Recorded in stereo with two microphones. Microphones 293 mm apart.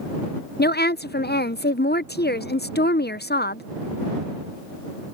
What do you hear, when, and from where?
0.6 s a woman speaking: 35° left (ahead or behind)